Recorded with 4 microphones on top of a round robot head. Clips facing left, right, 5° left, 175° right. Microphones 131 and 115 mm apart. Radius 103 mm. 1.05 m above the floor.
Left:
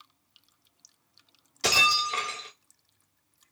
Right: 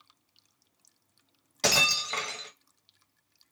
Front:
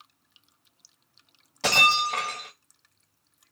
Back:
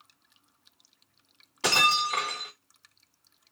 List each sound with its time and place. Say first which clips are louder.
1.6 s breaking glass: left 2 dB, front 2 dB; 65° right, 1.9 m